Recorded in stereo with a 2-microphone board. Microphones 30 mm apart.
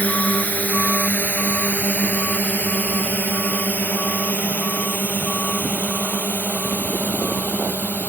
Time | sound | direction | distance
0.0 | a drone | 60° left (ahead or behind) | ?